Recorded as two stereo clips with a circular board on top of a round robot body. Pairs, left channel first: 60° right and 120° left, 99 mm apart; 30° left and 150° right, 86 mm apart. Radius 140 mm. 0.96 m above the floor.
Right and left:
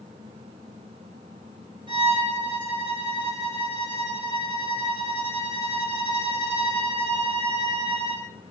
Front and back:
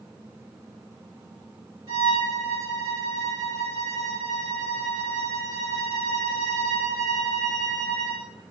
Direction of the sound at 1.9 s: 160° left.